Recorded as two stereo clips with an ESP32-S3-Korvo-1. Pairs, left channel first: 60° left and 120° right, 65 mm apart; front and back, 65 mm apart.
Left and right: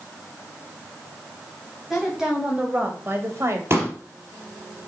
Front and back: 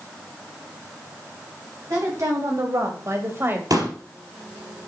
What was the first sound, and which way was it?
A woman speaking, 155° left.